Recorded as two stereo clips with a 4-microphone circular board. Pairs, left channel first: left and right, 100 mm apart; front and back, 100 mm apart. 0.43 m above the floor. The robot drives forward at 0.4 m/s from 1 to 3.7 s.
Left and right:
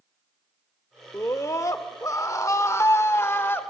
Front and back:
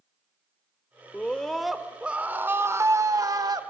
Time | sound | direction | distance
1.1 | a scream | 65° left | 0.9 m